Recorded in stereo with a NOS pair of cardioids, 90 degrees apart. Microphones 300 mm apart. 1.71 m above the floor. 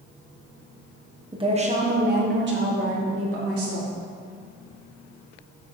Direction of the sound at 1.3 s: 15° right.